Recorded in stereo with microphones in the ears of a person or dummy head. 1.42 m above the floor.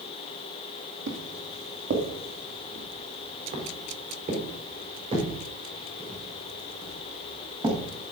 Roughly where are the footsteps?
Right.